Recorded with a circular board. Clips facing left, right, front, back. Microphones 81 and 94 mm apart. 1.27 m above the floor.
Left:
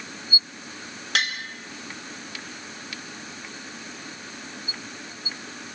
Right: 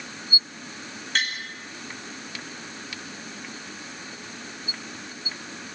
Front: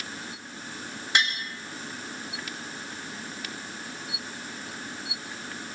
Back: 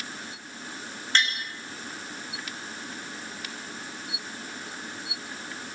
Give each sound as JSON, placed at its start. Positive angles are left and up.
{"t": 1.1, "sound": "tapping", "azimuth_deg": 80, "distance_m": 5.0}